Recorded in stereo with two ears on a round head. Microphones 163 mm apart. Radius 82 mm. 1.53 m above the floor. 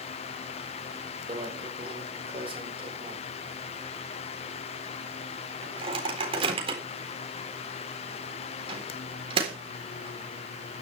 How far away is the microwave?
About 4 m.